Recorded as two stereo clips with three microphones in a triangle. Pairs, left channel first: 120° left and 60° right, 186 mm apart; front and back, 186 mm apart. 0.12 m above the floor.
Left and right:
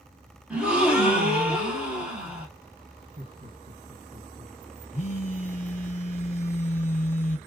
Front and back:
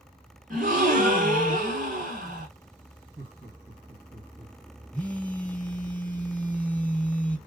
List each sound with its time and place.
0.5 s a gasp: 145° right, 1.7 m
3.2 s laughter: 100° right, 2 m
4.9 s a phone buzzing: 80° left, 1.2 m